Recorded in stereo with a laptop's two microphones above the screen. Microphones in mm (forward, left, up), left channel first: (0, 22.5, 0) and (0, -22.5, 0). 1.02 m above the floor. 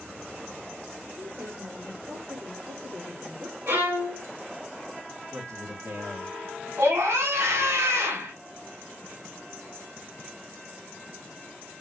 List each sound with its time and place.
1.1 s a woman speaking: 60° right (ahead or behind), 2.5 m; by 3.6 s 30° right (ahead or behind), 1.0 m
3.7 s a violin: 75° right (ahead or behind), 2 m
5.3 s a man speaking: 80° right, 1.6 m
6.8 s a scream: 75° right (ahead or behind), 3.5 m